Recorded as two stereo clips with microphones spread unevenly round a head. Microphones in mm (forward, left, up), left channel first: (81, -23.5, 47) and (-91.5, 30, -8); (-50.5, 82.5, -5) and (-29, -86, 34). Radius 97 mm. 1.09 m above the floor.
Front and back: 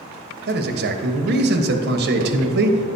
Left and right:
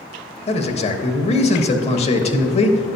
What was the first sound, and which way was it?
A man speaking, 145° left.